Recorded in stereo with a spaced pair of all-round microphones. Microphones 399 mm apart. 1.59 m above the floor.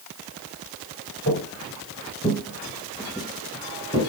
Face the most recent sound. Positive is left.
turn(degrees=-25)  # may be behind; listen again after turning